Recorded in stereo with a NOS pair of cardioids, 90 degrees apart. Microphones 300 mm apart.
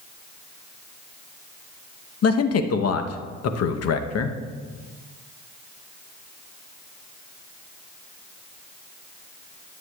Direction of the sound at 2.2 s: 55° left.